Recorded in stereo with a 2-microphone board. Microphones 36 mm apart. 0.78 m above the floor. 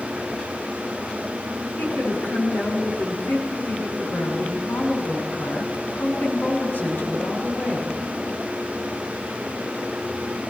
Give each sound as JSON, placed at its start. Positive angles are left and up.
{"t": 1.8, "sound": "a woman speaking", "side_deg": 75, "distance_m": 7.0}